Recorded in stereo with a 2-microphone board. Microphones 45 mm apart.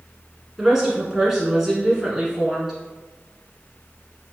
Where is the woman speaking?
10° right (ahead or behind), 1.1 m.